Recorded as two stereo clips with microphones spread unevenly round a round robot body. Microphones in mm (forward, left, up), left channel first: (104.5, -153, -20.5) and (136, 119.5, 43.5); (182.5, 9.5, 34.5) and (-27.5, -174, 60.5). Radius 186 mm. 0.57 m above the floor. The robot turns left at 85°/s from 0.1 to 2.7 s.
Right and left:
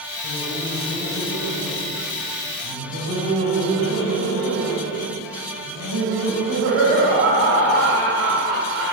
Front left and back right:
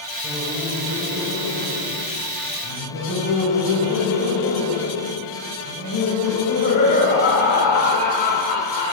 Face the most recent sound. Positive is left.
turn(degrees=105)